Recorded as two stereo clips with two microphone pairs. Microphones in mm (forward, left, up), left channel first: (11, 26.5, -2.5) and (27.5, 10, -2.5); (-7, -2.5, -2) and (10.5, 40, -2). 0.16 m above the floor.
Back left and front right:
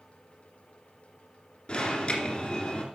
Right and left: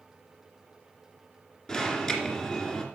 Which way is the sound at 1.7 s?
175° left.